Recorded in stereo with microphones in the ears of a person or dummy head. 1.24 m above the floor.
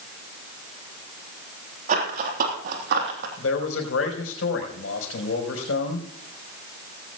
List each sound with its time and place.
1.9 s running footsteps: 50° right (ahead or behind), 3.5 m; by 3.3 s 65° right (ahead or behind), 2.5 m
3.4 s a man speaking: 85° left, 4 m